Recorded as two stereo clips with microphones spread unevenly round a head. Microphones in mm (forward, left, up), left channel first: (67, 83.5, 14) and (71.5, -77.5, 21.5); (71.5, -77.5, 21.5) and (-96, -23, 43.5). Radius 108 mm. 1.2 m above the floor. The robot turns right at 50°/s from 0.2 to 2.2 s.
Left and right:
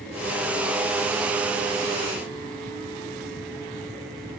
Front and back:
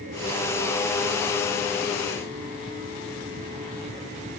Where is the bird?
No bird in this recording.